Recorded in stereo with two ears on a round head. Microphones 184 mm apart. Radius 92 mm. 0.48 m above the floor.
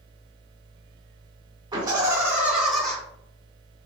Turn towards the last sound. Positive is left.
turn(degrees=5)  # may be behind; listen again after turning